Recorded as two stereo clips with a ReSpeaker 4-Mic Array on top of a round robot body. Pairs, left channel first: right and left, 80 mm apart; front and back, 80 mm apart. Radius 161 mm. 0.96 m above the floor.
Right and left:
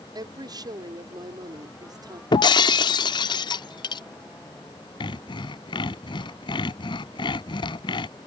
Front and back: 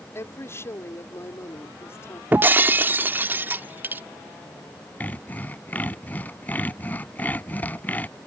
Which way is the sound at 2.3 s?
115° right.